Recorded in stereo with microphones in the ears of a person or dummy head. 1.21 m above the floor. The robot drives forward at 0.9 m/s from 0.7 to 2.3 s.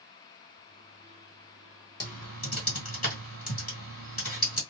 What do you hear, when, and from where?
2.0 s typing on a keyboard: 45° left (ahead or behind), 1.4 m; by 4.6 s 40° left (ahead or behind), 1.6 m